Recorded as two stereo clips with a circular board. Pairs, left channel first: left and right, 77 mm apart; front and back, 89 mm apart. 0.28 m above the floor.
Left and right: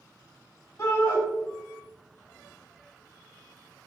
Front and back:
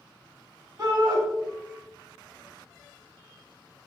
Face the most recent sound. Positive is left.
turn(degrees=140)